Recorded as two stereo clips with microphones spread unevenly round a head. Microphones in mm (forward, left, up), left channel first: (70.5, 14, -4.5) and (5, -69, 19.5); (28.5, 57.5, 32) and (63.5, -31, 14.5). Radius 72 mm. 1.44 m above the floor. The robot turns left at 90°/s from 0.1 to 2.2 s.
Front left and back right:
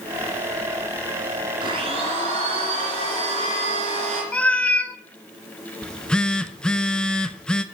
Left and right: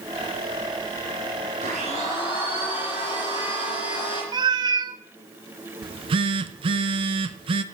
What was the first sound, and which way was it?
A blender, 95° right.